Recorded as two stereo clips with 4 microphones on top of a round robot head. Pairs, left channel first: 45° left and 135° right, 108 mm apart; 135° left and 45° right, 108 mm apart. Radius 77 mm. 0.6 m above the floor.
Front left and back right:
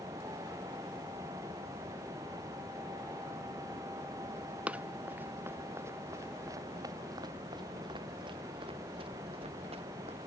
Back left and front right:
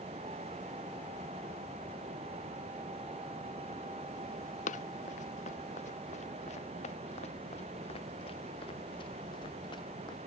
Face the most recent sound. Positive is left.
turn(degrees=-170)